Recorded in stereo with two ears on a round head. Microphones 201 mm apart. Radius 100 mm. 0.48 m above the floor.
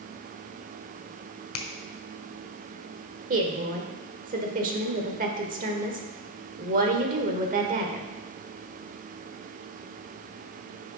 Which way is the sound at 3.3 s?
40° right (ahead or behind).